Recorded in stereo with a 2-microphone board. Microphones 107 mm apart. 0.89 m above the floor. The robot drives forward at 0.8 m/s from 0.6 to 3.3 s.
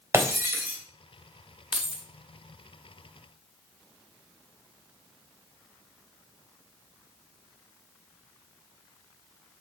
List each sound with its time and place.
0.1 s breaking glass: 25° right (ahead or behind), 2.5 m
1.7 s keys jangling: 5° right (ahead or behind), 0.9 m